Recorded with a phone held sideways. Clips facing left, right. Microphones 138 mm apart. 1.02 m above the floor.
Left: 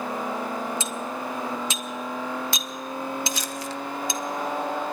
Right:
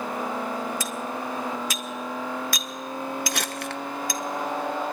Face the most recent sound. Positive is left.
turn(degrees=-60)  # may be behind; listen again after turning